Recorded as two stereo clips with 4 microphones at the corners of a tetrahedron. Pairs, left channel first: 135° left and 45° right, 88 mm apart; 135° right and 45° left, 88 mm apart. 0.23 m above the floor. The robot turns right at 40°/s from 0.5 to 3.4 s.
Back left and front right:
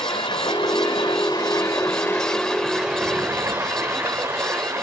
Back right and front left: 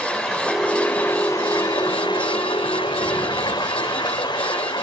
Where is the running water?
140° left, 4 m; by 4.8 s 105° right, 4 m.